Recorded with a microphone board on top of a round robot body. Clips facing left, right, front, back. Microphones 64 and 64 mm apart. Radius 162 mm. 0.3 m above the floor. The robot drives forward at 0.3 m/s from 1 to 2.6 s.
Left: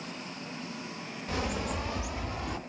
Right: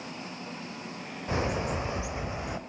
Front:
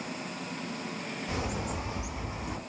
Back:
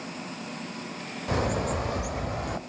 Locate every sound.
1.3 s a bird: 150° right, 1.1 m; by 2.6 s 160° right, 1.4 m